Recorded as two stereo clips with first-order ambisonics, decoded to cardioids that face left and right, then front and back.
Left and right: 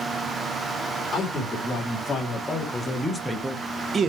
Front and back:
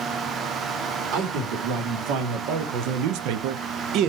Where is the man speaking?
160° left, 2.5 m; by 4.1 s 145° right, 0.6 m.